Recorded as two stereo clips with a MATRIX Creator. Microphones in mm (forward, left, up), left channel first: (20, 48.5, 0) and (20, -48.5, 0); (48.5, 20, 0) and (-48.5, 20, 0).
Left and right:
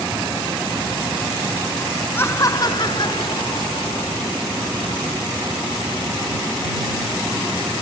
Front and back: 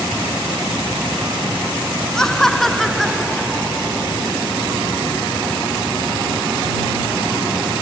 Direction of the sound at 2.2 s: 75° left.